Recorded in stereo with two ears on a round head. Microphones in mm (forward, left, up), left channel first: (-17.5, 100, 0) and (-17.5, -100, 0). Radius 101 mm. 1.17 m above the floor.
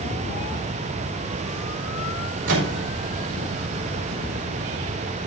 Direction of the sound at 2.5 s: 65° right (ahead or behind).